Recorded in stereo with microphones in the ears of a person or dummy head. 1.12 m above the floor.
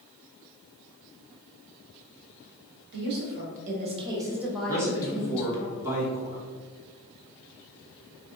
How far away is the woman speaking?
About 1.2 m.